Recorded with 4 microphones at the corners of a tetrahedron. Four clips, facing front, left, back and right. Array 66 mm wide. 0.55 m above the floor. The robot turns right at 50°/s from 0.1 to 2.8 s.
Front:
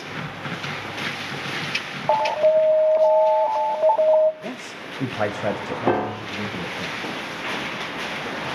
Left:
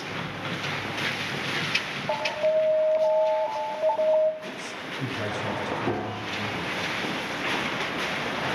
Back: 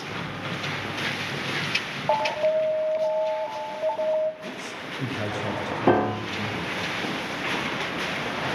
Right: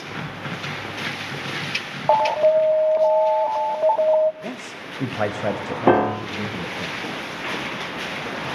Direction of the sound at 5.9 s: 95° right.